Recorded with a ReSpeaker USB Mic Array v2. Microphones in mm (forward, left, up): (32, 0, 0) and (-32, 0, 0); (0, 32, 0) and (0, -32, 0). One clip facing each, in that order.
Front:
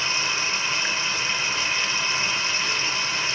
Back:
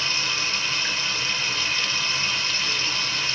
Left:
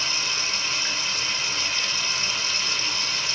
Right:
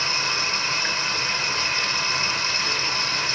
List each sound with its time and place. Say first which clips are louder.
0.0 s running water: front 1 dB, right 4 dB; 65° right, 0.8 m